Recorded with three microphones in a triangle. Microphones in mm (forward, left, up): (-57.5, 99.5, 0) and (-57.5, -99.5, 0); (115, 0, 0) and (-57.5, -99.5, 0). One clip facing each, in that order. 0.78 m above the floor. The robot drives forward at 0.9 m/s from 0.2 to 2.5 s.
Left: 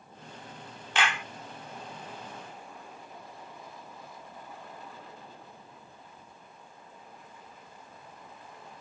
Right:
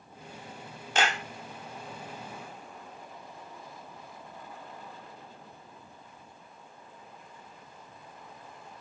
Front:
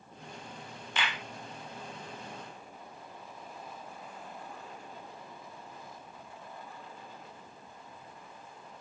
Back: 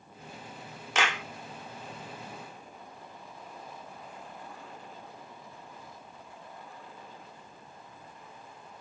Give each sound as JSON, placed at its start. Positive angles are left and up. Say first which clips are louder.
{"t": 0.9, "sound": "a clap", "louder": "right 2 dB, back 6 dB", "azimuth_deg": -140}